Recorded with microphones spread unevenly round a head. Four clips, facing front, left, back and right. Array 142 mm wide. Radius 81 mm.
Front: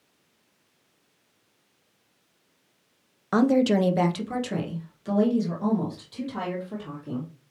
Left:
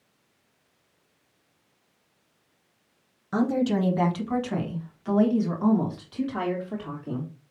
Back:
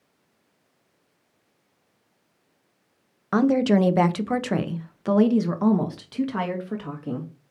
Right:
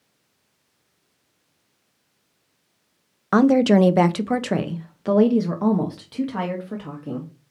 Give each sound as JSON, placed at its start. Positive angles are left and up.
{"t": 3.3, "sound": "a woman speaking", "azimuth_deg": -75, "distance_m": 0.9}